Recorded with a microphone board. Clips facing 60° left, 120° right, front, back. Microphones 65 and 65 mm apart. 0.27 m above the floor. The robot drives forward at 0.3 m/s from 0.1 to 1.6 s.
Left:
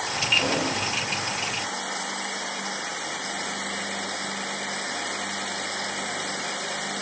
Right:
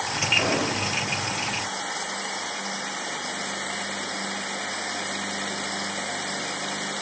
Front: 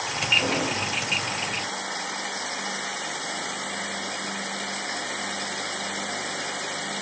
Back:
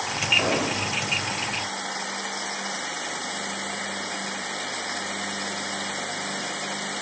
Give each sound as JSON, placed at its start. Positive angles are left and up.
{"t": 0.4, "sound": "an explosion", "azimuth_deg": -165, "distance_m": 1.7}